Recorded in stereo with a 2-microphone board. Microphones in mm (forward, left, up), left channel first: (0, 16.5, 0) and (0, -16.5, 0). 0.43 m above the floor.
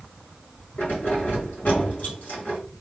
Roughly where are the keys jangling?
Left.